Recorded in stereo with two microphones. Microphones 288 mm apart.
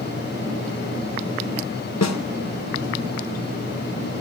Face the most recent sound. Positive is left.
turn(degrees=65)  # may be behind; listen again after turning